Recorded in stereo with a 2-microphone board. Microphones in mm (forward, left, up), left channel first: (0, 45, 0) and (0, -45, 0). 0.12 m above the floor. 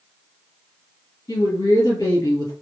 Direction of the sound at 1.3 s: 40° left (ahead or behind).